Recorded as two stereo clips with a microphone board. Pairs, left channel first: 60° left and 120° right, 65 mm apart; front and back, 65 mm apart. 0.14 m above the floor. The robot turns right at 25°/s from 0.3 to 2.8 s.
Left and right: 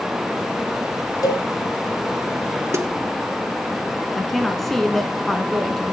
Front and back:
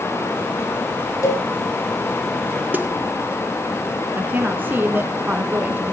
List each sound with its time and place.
1.2 s a cowbell: 40° left, 3 m; by 1.5 s 45° left, 3 m
2.7 s a snare drum: 125° right, 2 m
4.1 s a woman speaking: 145° left, 1.2 m